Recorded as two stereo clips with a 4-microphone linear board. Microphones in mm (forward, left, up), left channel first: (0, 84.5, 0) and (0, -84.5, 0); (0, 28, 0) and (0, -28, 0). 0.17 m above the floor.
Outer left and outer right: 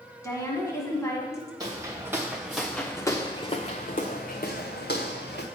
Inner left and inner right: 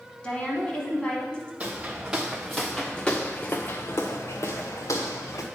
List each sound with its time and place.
0.2 s a woman speaking: 15° left (ahead or behind), 1.1 m
1.6 s footsteps: 25° right (ahead or behind), 1.2 m; by 5.5 s 80° left, 1.4 m